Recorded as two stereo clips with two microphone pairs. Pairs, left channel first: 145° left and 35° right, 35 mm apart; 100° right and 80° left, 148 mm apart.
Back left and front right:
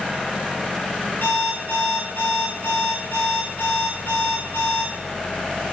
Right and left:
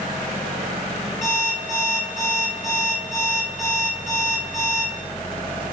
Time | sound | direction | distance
1.2 | an alarm clock | 165° left | 3.5 m